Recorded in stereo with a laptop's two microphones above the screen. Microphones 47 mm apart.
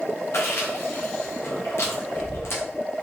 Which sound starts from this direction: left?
Chewing, at 0.3 s.